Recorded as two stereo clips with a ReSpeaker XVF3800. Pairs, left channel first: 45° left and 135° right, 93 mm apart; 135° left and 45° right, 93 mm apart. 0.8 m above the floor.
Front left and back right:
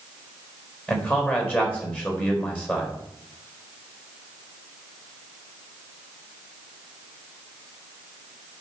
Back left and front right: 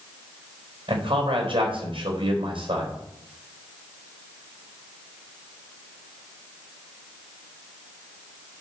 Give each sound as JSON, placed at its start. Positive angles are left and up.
{"t": 0.9, "sound": "a man speaking", "azimuth_deg": -20, "distance_m": 4.0}